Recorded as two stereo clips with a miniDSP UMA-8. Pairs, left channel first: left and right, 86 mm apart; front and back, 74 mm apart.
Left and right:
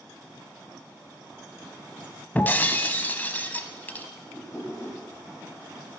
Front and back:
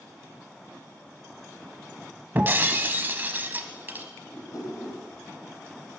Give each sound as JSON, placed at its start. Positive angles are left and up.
{"t": 2.4, "sound": "breaking glass", "azimuth_deg": 140, "distance_m": 0.7}
{"t": 4.3, "sound": "a whoosh", "azimuth_deg": 30, "distance_m": 3.0}